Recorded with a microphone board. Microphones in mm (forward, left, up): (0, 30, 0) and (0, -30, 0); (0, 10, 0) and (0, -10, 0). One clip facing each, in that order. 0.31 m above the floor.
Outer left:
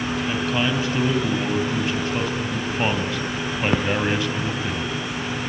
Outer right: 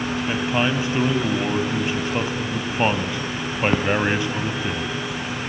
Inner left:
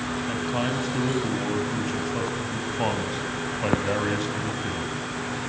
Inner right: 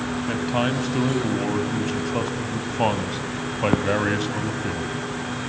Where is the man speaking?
20° right (ahead or behind), 2 m.